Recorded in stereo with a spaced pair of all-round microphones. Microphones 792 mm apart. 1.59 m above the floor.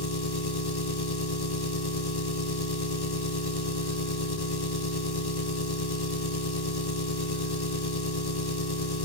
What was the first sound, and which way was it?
An engine running, 30° left (ahead or behind).